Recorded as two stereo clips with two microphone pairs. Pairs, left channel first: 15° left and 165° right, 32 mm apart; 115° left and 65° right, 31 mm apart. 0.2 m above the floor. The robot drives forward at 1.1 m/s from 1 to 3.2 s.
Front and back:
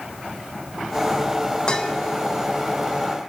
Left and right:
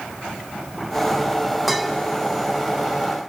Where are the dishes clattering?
20° left, 1.1 m; by 1.9 s 40° left, 0.9 m.